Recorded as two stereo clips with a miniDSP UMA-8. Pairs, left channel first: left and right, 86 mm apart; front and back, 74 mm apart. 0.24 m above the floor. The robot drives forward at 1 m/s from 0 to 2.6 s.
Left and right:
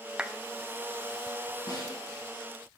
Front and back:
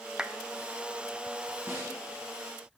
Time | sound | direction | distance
0.2 | a clap | 130° right | 0.7 m
1.7 | a snare drum | 125° left | 6 m